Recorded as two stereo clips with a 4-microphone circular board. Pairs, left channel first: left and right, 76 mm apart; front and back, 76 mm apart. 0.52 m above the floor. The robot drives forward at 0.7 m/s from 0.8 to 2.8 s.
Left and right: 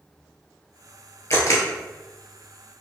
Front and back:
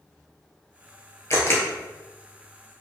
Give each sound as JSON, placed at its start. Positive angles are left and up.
{"t": 1.3, "sound": "a camera shutter", "azimuth_deg": 45, "distance_m": 1.4}